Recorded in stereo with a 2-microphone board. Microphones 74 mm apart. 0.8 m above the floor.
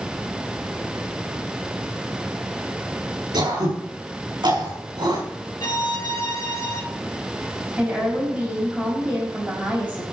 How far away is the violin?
About 1.8 m.